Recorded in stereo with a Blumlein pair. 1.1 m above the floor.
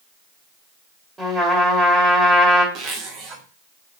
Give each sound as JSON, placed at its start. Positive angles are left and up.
{"t": 1.2, "sound": "a trumpet", "azimuth_deg": -15, "distance_m": 2.0}
{"t": 2.8, "sound": "a zipper", "azimuth_deg": -30, "distance_m": 1.4}